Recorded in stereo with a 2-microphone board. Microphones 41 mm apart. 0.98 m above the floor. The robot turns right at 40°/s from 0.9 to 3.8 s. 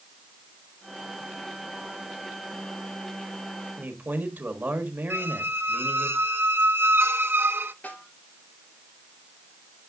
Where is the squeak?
65° right (ahead or behind), 0.6 m.